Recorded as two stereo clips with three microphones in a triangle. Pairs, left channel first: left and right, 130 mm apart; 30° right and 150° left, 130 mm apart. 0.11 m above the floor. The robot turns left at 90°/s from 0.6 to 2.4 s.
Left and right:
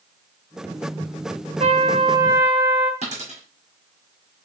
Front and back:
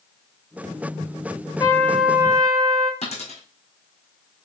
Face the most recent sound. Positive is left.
turn(degrees=-60)